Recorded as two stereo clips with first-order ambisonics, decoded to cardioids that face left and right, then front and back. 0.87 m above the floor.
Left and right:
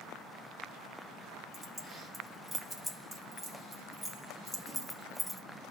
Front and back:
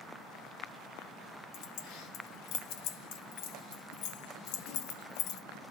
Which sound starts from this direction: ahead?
Keys jangling, at 1.5 s.